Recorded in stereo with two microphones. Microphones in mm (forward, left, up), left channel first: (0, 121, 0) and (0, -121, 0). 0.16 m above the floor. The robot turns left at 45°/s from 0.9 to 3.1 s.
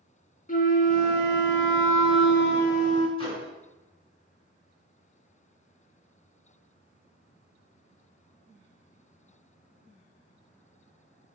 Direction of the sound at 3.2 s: 20° left (ahead or behind).